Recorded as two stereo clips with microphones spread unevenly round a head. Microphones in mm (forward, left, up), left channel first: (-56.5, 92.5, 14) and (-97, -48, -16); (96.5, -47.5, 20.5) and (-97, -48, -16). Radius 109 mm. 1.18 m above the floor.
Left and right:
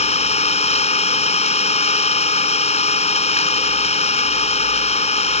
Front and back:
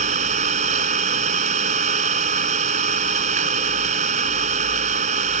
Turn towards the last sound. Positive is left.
turn(degrees=120)